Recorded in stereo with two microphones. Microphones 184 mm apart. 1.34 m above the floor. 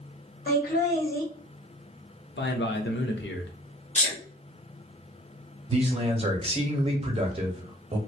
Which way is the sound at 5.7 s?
35° right (ahead or behind).